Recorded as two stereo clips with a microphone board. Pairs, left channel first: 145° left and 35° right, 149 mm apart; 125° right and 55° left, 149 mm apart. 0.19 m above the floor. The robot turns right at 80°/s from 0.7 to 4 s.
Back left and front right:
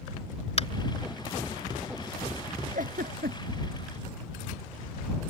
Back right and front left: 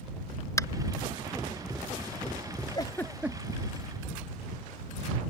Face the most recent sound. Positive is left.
turn(degrees=35)